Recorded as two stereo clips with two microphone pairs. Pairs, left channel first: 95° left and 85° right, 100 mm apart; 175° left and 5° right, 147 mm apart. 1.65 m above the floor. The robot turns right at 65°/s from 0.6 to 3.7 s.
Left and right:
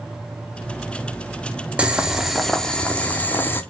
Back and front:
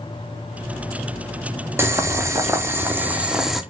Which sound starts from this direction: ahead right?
Boiling, at 1.8 s.